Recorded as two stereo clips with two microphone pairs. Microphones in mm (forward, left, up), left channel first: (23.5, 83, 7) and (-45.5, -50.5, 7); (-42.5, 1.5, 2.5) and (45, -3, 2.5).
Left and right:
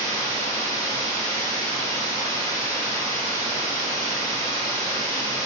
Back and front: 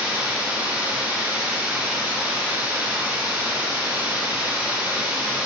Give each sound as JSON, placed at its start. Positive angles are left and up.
{"t": 0.0, "sound": "running water", "azimuth_deg": 30, "distance_m": 1.4}